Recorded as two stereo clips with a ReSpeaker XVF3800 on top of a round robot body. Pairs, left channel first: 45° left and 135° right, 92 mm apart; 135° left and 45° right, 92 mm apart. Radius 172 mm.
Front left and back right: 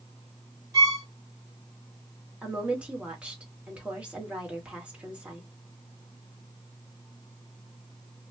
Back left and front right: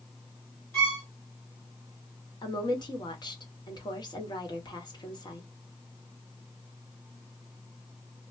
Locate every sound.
0.7 s a violin: 170° right, 1.9 m
2.4 s a woman speaking: 150° left, 1.4 m